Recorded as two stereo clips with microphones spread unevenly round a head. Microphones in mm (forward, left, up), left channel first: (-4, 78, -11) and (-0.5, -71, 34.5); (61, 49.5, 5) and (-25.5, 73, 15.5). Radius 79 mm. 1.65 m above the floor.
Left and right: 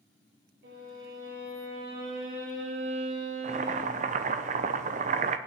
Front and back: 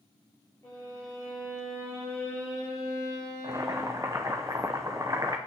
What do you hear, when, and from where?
0.6 s a violin: 90° right, 8.5 m
3.4 s boiling: 125° right, 0.9 m